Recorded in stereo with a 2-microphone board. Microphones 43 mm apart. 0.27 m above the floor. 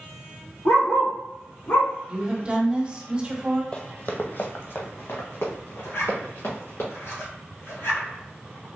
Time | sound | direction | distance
0.7 | a dog barking | 70° left (ahead or behind) | 2.0 m
2.1 | a woman speaking | 25° right (ahead or behind) | 1.0 m
3.7 | running footsteps | 25° left (ahead or behind) | 0.5 m
5.8 | a zipper | 80° left | 1.5 m